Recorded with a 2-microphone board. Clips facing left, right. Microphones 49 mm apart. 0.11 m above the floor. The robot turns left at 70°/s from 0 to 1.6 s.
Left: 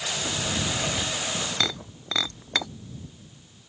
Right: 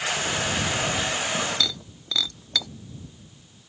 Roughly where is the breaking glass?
Left.